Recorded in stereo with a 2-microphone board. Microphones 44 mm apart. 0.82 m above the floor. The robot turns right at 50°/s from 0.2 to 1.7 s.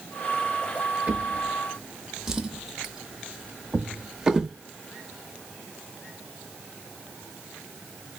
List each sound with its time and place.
1.1 s a drawer: 25° right (ahead or behind), 0.5 m; by 4.5 s 10° right (ahead or behind), 0.5 m